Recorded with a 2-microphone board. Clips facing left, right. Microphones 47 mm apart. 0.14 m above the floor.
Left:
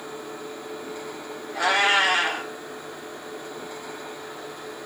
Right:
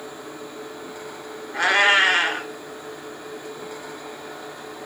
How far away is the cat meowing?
About 0.9 m.